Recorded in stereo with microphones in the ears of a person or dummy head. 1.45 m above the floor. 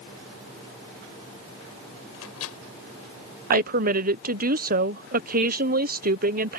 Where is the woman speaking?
45° right (ahead or behind).